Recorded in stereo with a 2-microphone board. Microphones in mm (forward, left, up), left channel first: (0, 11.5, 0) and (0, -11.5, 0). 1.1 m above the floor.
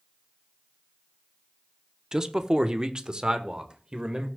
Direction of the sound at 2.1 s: 25° right (ahead or behind).